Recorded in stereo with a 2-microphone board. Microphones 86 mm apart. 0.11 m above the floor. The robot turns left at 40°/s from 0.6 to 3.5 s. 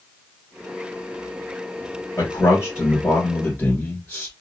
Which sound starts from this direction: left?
A man speaking, at 2.2 s.